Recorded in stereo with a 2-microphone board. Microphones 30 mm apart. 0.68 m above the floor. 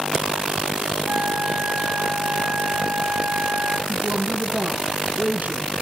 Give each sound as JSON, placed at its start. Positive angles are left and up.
{"t": 1.1, "sound": "a flute", "side_deg": -70, "distance_m": 4.5}
{"t": 3.9, "sound": "a woman speaking", "side_deg": -65, "distance_m": 5.0}